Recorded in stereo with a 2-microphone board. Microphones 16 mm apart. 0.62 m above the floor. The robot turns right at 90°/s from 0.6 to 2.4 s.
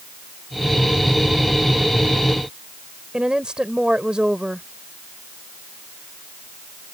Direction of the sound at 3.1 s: 55° right (ahead or behind).